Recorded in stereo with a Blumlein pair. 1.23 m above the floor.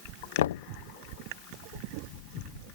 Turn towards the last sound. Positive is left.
turn(degrees=60)